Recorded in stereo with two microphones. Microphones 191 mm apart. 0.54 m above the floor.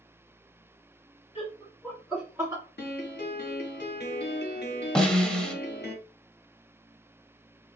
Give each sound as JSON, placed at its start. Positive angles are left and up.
{"t": 1.4, "sound": "laughter", "side_deg": 35, "distance_m": 1.2}
{"t": 2.8, "sound": "a piano", "side_deg": 65, "distance_m": 0.7}
{"t": 5.0, "sound": "a snare drum", "side_deg": 5, "distance_m": 0.7}